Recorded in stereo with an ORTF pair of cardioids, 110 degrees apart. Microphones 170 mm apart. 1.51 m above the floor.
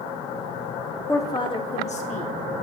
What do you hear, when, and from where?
1.1 s a woman speaking: 15° left, 1.1 m; by 2.3 s 50° left, 2.0 m